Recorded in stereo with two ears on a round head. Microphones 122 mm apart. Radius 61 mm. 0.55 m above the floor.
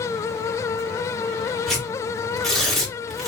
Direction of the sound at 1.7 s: Centre (ahead or behind).